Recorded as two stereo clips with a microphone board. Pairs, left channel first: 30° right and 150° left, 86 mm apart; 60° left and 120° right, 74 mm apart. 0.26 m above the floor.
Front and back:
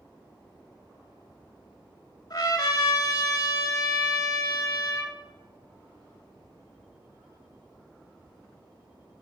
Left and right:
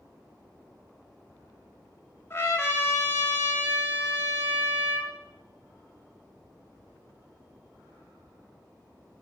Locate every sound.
2.3 s a trumpet: 5° left, 0.5 m